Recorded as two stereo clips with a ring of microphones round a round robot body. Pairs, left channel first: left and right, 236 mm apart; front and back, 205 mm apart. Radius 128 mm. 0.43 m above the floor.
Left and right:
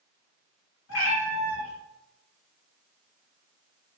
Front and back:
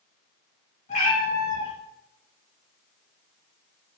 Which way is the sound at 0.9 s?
55° left.